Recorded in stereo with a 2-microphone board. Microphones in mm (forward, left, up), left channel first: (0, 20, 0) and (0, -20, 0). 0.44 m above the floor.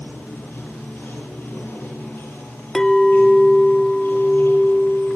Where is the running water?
65° left (ahead or behind), 6.5 m.